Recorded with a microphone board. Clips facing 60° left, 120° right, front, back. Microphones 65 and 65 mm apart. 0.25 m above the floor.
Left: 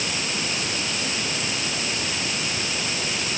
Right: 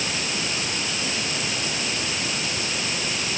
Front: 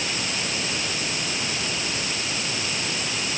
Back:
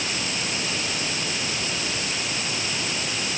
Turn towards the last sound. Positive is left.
No sound to turn to.